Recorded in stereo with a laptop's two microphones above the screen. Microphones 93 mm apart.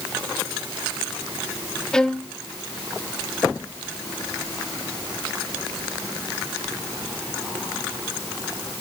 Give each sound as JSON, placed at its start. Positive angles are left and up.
{"t": 1.9, "sound": "a violin", "side_deg": 5, "distance_m": 0.7}